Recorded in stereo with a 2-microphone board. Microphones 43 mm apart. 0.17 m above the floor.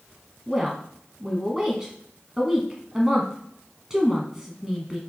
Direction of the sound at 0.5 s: 15° right (ahead or behind).